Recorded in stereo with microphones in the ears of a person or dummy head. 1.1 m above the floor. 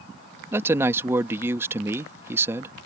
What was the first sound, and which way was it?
A woman speaking, 10° right (ahead or behind).